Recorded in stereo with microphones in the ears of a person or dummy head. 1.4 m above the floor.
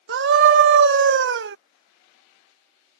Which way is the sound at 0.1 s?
70° right (ahead or behind).